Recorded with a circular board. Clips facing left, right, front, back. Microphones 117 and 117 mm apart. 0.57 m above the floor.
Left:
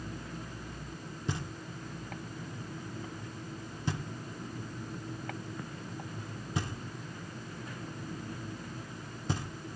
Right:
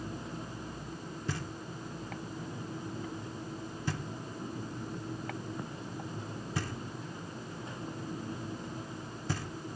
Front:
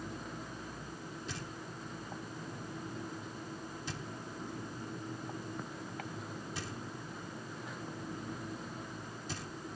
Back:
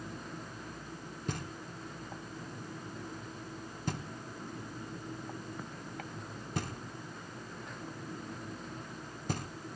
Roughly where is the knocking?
Behind left.